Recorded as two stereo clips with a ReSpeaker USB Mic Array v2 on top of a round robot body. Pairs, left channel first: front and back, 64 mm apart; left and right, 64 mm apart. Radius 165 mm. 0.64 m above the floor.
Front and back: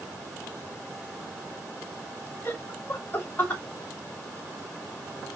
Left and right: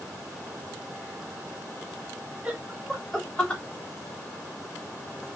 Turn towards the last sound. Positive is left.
turn(degrees=40)